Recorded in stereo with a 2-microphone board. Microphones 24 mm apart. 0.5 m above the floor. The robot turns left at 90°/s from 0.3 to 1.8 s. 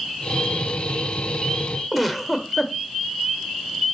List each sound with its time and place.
1.9 s a giggle: centre (ahead or behind), 0.7 m